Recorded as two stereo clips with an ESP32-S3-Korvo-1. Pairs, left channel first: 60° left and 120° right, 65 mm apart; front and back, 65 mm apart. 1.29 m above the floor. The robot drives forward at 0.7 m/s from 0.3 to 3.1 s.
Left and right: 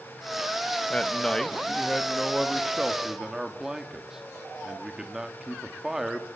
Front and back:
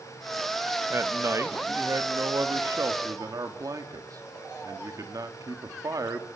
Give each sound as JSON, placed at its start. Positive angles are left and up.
{"t": 0.9, "sound": "a man speaking", "azimuth_deg": 135, "distance_m": 1.6}